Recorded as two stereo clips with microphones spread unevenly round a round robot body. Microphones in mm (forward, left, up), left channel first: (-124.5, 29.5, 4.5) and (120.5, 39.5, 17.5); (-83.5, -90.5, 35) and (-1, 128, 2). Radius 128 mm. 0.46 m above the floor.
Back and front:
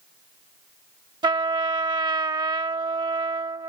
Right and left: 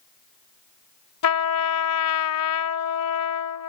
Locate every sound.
1.2 s a trumpet: 70° right